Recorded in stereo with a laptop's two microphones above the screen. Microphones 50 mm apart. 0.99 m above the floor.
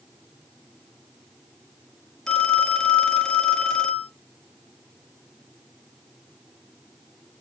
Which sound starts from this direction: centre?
A phone ringing, at 2.3 s.